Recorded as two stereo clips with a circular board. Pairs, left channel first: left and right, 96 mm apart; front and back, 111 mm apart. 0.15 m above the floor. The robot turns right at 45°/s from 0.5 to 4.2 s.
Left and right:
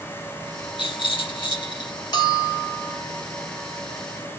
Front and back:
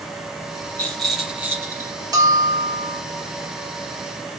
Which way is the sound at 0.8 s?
75° left.